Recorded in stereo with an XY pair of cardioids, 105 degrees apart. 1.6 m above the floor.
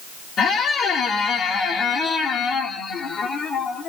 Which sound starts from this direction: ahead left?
A squeak, at 0.4 s.